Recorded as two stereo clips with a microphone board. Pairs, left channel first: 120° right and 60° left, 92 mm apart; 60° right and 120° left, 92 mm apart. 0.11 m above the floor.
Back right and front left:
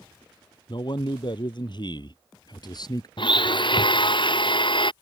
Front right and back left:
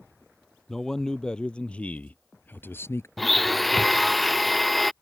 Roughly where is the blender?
Behind right.